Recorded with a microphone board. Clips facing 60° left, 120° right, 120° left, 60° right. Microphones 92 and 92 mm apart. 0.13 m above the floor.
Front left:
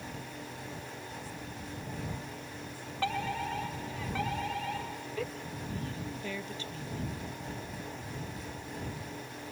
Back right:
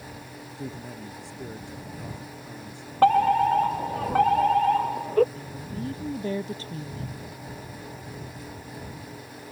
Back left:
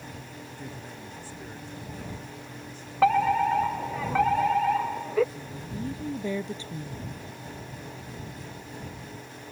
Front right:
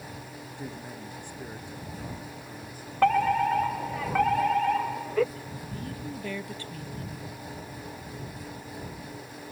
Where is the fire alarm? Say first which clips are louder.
Back right 16 dB, back left 1 dB; 155° right.